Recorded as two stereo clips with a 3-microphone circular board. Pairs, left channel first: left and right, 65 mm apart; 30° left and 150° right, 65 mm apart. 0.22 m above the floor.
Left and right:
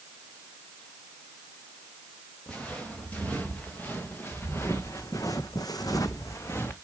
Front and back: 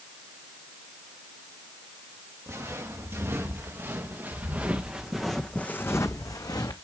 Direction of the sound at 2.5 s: 160° left.